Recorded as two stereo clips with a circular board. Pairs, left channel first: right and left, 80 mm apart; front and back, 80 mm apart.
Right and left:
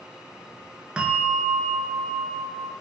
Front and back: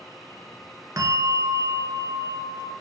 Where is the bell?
165° left, 0.6 m.